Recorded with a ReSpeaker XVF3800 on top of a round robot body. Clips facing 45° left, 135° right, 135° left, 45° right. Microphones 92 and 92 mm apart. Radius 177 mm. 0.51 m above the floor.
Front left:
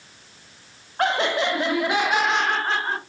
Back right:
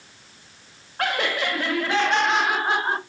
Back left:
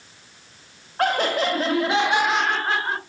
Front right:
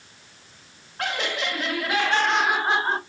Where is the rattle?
No rattle in this recording.